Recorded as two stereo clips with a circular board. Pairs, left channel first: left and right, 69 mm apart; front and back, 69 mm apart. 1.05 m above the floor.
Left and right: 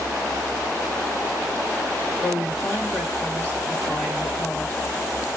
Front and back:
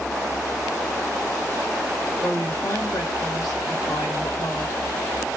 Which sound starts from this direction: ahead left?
A woman speaking, at 2.2 s.